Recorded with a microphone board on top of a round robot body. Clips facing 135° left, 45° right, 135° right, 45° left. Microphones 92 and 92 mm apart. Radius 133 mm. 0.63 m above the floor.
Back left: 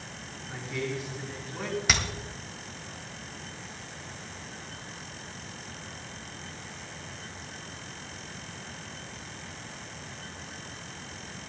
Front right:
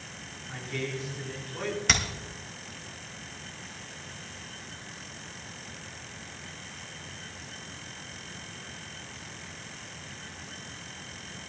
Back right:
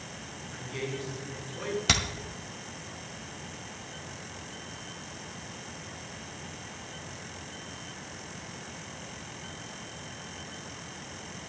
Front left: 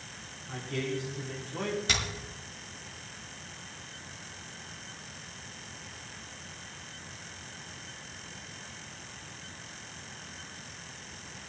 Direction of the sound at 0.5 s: 50° left.